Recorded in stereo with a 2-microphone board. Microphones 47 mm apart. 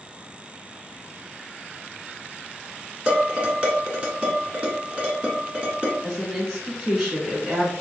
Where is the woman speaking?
10° right (ahead or behind), 1.2 m.